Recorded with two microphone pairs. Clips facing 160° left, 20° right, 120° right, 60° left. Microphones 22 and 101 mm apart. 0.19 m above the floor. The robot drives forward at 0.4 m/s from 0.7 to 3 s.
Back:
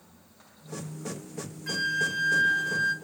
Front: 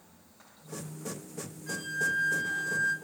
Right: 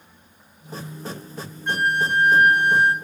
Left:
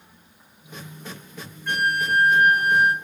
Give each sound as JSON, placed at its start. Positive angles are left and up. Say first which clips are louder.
{"t": 1.7, "sound": "a flute", "louder": "back 3 dB, right 1 dB", "azimuth_deg": 175, "distance_m": 0.7}